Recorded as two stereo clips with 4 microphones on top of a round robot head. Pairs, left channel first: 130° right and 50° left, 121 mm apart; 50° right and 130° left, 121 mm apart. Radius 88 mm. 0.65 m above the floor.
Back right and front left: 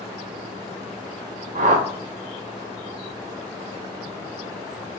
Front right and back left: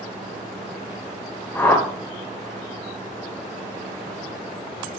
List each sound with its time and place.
1.6 s a whoosh: 25° left, 1.2 m